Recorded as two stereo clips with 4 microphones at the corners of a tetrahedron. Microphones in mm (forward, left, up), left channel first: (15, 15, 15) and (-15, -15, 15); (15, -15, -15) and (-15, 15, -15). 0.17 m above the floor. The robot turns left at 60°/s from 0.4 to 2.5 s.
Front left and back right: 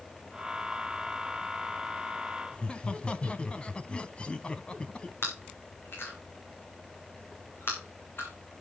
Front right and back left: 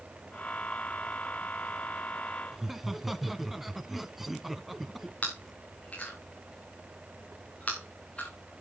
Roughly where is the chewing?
Ahead.